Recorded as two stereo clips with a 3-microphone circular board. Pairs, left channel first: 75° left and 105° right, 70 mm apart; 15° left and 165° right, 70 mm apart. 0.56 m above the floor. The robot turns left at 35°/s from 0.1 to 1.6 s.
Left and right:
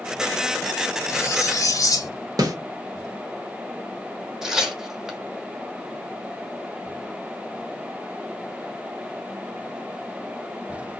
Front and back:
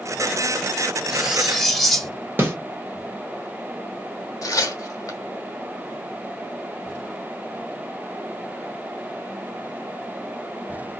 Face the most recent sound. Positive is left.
turn(degrees=-20)